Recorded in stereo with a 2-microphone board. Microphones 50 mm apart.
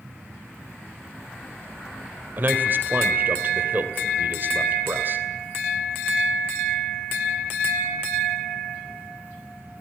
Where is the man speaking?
40° right (ahead or behind), 3 m.